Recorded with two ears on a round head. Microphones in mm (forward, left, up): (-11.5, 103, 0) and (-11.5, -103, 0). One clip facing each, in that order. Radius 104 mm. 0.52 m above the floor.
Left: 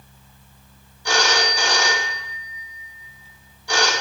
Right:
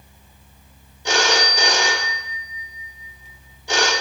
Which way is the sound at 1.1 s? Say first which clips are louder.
Right 1 dB; 20° right (ahead or behind).